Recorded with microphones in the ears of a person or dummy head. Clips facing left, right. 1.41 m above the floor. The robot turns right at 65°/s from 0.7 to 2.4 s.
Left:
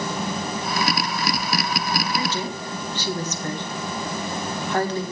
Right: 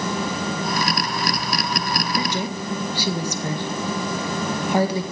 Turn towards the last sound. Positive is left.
turn(degrees=-15)  # may be behind; listen again after turning